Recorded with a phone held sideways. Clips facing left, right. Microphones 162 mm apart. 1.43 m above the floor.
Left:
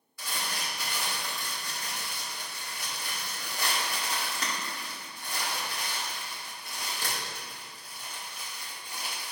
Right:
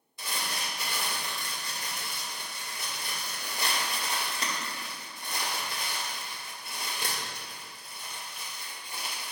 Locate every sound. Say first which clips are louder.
0.2 s crumpling: even; 20° right (ahead or behind), 2 m